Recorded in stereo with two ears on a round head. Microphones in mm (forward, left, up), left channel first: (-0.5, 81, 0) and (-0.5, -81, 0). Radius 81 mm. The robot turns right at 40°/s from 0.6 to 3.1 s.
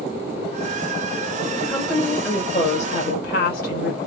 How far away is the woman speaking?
About 2.5 m.